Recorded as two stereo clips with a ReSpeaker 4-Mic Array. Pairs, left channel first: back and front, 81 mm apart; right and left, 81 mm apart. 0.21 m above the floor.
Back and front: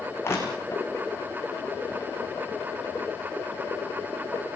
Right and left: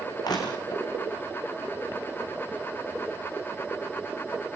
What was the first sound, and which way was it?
Crushing, 125° right.